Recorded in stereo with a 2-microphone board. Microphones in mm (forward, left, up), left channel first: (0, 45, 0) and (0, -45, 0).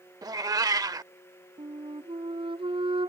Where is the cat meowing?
45° right (ahead or behind).